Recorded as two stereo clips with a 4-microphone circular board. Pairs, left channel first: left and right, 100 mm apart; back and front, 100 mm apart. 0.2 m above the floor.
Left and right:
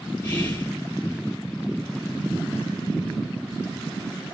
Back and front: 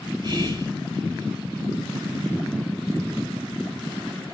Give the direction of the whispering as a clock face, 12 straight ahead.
10 o'clock.